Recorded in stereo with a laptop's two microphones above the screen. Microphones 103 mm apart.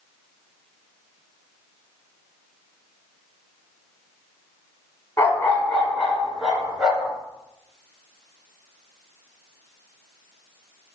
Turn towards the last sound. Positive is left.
turn(degrees=-10)  # may be behind; listen again after turning